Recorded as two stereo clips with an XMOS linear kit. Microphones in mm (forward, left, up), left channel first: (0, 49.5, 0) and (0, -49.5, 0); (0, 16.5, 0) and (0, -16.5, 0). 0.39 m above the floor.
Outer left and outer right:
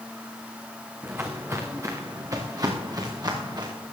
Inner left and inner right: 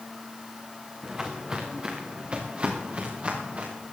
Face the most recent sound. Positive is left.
turn(degrees=-45)  # may be behind; listen again after turning